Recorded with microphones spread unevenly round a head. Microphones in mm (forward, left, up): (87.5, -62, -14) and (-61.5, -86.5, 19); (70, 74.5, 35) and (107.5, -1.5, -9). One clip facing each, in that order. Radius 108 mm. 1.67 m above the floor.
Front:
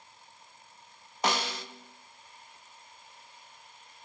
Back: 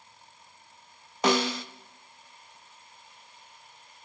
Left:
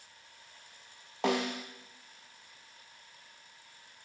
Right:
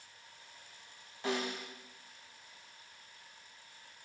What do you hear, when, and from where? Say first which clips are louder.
1.2 s a snare drum: back 6 dB, left 5 dB; straight behind, 0.6 m